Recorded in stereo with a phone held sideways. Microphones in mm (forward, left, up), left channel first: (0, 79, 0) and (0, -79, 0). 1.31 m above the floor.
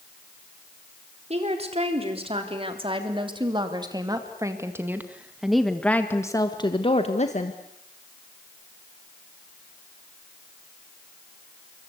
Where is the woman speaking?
40° right (ahead or behind), 4 m; by 7.6 s 55° left (ahead or behind), 1.6 m.